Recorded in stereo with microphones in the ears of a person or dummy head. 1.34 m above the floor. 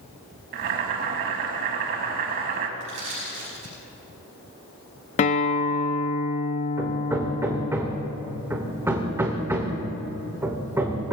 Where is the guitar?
35° left (ahead or behind), 0.7 m.